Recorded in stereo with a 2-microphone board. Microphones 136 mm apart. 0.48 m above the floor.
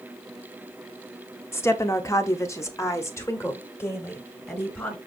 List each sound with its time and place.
1.5 s a woman speaking: 20° left (ahead or behind), 0.8 m; by 5.0 s 15° left (ahead or behind), 2.5 m